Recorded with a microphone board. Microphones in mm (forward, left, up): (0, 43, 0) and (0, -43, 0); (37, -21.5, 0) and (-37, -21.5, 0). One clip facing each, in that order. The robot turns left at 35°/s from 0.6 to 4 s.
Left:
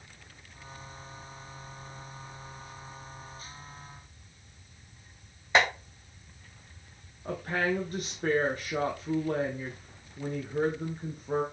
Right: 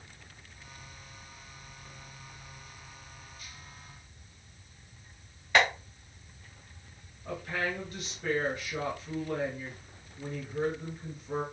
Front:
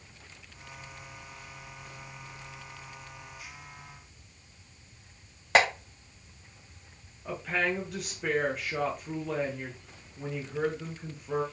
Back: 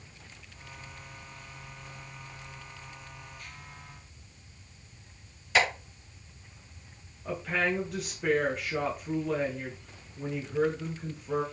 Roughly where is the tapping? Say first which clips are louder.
Even, front 3 dB; ahead left.